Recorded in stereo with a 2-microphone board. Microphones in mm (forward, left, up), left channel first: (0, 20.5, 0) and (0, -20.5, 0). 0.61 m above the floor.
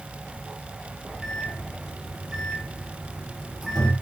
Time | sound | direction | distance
1.2 | a microwave | 5° right (ahead or behind) | 9.5 m